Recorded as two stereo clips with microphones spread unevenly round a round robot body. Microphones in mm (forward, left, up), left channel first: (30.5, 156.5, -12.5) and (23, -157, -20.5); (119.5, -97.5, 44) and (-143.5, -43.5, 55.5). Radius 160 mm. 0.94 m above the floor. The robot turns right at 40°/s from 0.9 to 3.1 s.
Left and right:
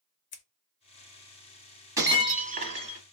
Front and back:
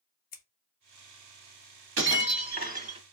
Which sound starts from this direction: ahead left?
Scissors, at 0.3 s.